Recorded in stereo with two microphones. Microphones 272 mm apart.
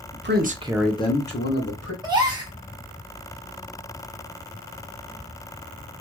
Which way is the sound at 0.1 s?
45° right (ahead or behind).